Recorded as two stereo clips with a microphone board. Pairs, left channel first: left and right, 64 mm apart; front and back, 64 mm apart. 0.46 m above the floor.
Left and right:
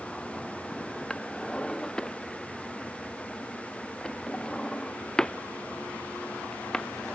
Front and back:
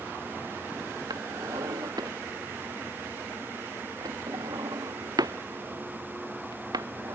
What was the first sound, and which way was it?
A drawer, 165° left.